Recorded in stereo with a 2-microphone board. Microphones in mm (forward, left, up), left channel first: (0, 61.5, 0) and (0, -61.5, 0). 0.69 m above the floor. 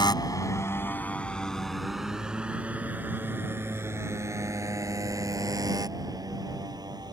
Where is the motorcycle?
35° left (ahead or behind); by 7.1 s 30° right (ahead or behind).